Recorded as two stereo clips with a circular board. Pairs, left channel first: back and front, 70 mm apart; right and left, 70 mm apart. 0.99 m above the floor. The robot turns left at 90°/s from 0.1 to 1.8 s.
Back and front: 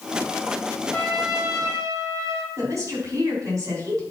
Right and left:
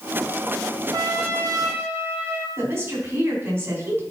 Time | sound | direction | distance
0.9 | a trumpet | 110° left | 1.3 m
2.6 | a woman speaking | 40° left | 4 m